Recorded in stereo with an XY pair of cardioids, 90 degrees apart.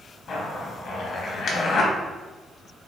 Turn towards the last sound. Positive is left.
turn(degrees=65)